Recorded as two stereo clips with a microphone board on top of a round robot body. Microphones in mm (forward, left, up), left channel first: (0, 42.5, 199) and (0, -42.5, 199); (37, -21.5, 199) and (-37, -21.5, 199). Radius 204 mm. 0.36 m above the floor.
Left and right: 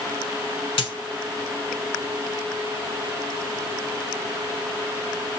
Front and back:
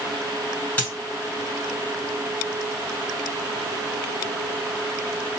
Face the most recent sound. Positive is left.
turn(degrees=75)